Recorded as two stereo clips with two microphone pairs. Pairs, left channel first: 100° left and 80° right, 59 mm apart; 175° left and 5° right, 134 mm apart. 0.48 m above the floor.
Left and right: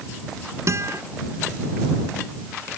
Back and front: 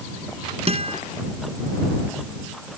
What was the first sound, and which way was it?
A guitar, 45° right.